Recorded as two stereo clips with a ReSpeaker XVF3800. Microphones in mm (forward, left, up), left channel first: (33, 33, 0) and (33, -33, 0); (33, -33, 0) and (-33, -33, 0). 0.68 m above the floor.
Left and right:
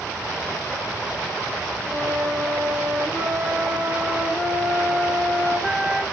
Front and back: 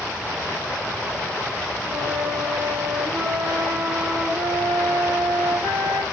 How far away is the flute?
About 2.5 m.